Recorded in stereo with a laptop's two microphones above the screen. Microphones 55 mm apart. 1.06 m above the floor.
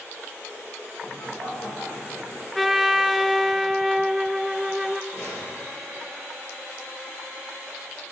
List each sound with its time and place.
1.0 s laughter: 55° left (ahead or behind), 3.5 m
2.5 s a trumpet: 5° right (ahead or behind), 0.6 m
5.1 s a gunshot: 65° left (ahead or behind), 7.5 m